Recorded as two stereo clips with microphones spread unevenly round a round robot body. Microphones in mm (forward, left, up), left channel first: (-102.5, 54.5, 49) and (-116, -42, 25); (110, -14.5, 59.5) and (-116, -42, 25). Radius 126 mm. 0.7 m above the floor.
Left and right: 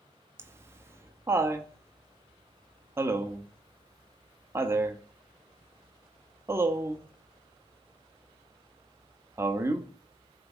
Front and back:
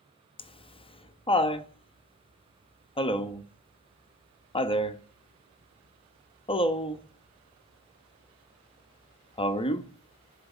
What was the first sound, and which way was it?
Laughter, 60° right.